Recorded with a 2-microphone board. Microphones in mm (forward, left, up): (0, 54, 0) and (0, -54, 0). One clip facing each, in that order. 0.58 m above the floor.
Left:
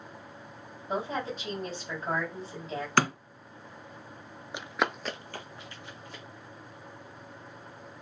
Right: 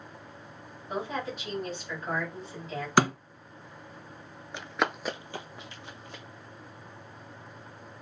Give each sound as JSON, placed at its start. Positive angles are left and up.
{"t": 0.9, "sound": "a woman speaking", "side_deg": 30, "distance_m": 3.0}
{"t": 3.0, "sound": "a thud", "side_deg": -15, "distance_m": 1.2}
{"t": 4.5, "sound": "running footsteps", "side_deg": 15, "distance_m": 0.5}